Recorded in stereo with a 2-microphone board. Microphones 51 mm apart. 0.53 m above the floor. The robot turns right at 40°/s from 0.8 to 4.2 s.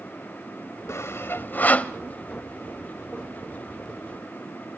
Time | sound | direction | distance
0.9 | sawing | 65° left (ahead or behind) | 0.6 m